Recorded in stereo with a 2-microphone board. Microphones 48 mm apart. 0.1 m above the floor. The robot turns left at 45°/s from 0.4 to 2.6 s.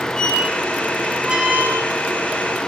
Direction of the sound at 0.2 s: 20° left (ahead or behind).